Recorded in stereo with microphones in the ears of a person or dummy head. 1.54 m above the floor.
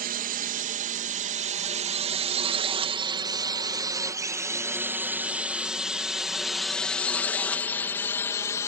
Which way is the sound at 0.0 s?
50° right (ahead or behind).